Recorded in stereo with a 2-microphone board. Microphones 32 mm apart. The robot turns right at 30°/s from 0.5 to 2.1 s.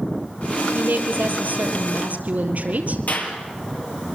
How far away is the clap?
About 4 m.